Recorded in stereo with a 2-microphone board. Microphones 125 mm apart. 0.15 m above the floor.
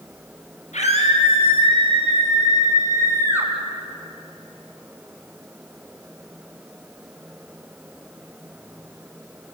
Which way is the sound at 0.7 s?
65° left (ahead or behind).